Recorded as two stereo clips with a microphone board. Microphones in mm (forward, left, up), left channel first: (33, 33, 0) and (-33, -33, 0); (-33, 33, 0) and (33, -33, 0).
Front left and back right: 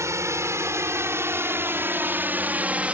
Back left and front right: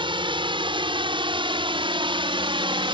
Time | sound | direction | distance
0.0 | a drone | 75° right | ?